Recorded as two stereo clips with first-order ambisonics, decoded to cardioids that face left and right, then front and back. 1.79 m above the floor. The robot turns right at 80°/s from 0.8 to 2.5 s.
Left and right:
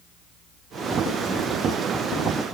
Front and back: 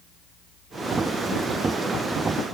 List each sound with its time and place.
Only background noise.